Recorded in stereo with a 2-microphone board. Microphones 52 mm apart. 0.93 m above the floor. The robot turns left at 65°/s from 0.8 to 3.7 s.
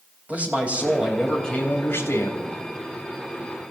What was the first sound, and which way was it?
A man speaking, 155° right.